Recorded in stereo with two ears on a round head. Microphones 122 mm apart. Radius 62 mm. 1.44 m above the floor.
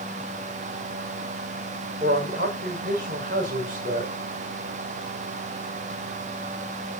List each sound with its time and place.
2.0 s a man speaking: 65° right (ahead or behind), 6 m